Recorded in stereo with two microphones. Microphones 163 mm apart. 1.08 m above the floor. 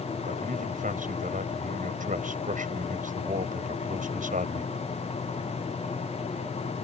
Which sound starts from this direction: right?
A man speaking, at 0.2 s.